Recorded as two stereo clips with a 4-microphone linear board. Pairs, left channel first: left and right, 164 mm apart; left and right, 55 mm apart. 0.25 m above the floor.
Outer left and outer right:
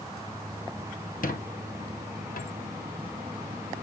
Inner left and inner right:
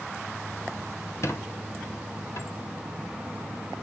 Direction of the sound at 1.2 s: 60° left (ahead or behind).